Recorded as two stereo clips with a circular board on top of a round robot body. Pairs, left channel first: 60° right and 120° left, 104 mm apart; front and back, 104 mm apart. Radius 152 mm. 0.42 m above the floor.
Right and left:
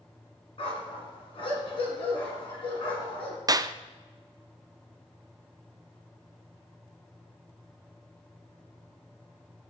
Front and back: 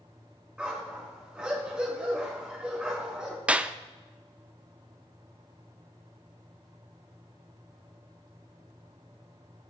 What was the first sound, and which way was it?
A dog barking, 100° right.